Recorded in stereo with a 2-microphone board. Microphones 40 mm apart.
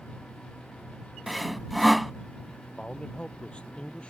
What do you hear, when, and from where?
1.3 s sawing: centre (ahead or behind)
2.8 s a man speaking: 30° left (ahead or behind)